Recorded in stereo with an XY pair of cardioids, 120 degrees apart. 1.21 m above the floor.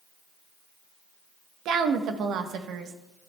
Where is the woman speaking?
70° right, 1.2 m.